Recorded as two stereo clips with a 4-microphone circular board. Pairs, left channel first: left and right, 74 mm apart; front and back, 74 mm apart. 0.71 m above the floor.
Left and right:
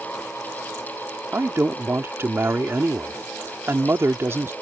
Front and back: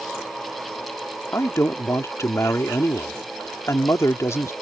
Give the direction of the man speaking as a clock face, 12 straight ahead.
1 o'clock.